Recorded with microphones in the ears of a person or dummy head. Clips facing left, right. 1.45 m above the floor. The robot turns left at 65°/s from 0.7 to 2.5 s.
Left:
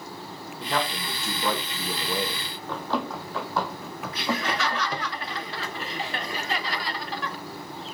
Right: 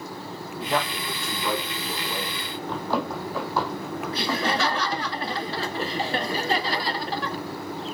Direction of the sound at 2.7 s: 15° right (ahead or behind).